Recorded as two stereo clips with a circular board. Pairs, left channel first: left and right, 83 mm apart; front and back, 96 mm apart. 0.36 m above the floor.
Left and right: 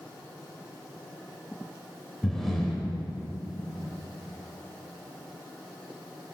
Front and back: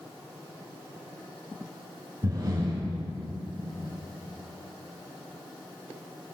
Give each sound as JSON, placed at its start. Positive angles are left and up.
{"t": 2.2, "sound": "breathing", "azimuth_deg": 175, "distance_m": 1.4}